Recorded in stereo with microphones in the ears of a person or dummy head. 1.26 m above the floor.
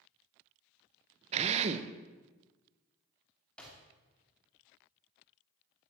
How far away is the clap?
About 2.5 m.